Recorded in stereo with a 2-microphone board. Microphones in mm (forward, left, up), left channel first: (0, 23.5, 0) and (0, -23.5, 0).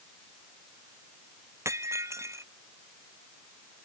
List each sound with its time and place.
1.6 s breaking glass: 75° right (ahead or behind)